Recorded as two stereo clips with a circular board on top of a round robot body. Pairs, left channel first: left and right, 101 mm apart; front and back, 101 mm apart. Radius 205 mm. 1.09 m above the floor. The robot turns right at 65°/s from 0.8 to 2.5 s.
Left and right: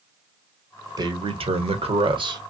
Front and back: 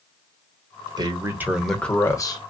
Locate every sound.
1.0 s a man speaking: 135° right, 1.1 m; by 2.4 s 45° right, 1.1 m